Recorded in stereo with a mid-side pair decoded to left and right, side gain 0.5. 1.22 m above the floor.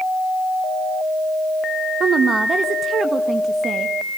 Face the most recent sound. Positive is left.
turn(degrees=-25)